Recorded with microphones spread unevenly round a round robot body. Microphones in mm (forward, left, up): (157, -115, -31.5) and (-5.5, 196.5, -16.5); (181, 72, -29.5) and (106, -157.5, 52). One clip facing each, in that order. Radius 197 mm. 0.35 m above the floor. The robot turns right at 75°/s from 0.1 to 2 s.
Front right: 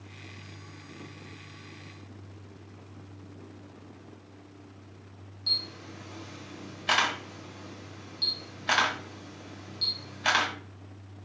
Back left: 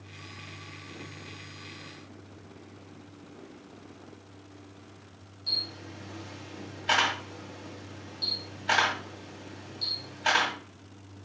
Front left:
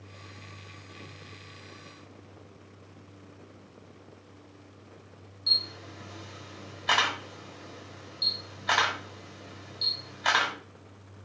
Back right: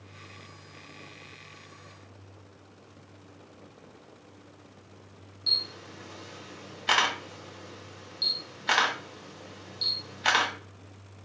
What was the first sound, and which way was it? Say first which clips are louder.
A camera shutter: back left 1 dB, even; 45° right.